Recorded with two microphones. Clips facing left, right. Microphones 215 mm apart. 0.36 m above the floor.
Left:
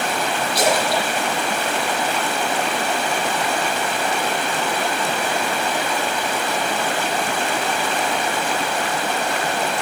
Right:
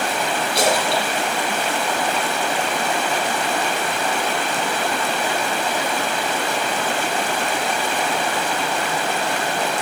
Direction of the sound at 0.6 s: 25° right (ahead or behind).